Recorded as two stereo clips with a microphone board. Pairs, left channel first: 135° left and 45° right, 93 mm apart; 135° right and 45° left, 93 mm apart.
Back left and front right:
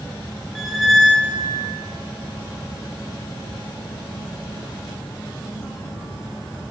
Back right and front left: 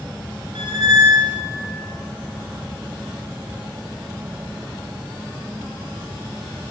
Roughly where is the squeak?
Ahead left.